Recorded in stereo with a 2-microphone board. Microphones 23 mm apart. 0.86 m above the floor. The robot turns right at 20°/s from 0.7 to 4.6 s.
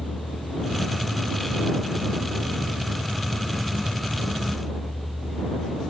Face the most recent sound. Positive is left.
turn(degrees=145)